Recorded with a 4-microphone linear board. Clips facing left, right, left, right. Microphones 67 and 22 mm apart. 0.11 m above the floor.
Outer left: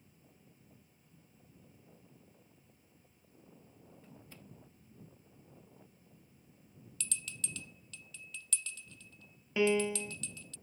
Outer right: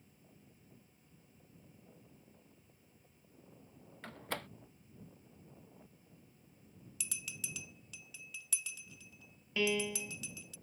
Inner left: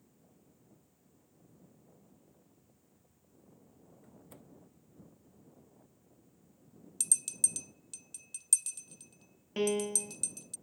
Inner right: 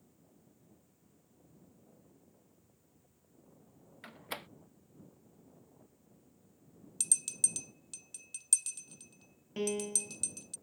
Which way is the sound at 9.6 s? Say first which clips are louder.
Outer left 5 dB, inner left 4 dB; 20° left (ahead or behind).